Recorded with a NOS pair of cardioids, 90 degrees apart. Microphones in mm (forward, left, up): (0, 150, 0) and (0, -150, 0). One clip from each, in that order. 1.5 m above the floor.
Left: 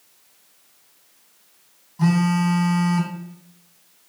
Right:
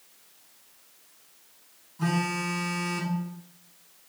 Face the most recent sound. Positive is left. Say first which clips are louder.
# left 6 dB
turn(degrees=70)